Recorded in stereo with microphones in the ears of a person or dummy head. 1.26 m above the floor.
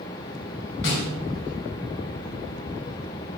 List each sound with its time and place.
0.8 s a snare drum: 65° left (ahead or behind), 2.5 m